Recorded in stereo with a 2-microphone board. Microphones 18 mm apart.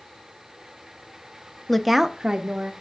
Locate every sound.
1.7 s a woman speaking: 20° left (ahead or behind), 0.6 m; by 2.7 s 55° right (ahead or behind), 1.0 m